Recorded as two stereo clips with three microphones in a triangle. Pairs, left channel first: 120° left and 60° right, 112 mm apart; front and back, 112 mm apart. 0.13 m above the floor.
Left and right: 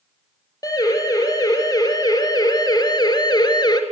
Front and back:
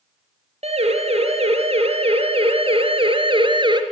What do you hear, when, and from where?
0.6 s a siren: 175° left, 6 m; by 3.8 s 155° left, 3 m